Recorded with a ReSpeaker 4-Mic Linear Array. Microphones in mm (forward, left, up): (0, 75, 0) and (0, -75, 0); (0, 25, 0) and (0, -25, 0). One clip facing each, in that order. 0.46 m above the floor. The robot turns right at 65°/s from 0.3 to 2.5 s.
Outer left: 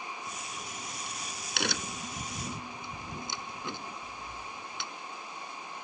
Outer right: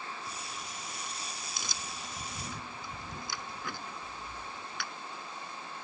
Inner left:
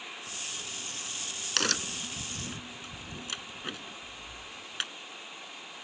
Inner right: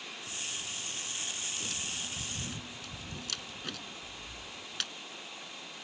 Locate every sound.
0.3 s a crack: 15° left (ahead or behind); by 4.9 s 20° left (ahead or behind)